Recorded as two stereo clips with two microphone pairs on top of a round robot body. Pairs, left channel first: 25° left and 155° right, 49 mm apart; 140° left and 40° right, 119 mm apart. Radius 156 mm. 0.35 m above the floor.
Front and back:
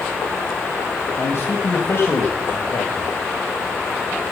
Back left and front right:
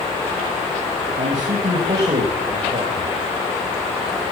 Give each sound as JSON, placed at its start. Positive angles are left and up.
{"t": 1.2, "sound": "a man speaking", "azimuth_deg": -15, "distance_m": 3.5}